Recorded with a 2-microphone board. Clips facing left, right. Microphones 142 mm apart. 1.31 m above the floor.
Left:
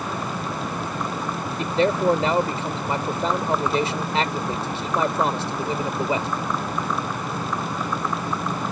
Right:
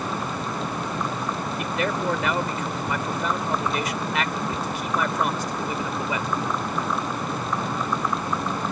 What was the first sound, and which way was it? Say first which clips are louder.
A man speaking: left 7 dB; 30° left (ahead or behind).